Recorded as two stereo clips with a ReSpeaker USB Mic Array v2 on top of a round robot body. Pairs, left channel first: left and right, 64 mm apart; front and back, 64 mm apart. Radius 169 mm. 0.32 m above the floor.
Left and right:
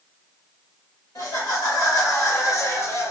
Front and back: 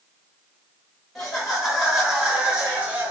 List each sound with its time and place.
1.1 s laughter: 95° left, 2.0 m; by 3.1 s 120° left, 1.3 m